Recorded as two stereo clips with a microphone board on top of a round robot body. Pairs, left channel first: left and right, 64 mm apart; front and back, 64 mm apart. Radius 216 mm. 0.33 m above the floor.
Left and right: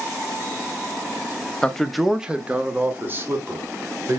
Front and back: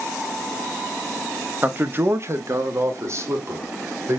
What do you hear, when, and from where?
1.6 s a man speaking: 150° left, 1.4 m; by 4.2 s 135° right, 3 m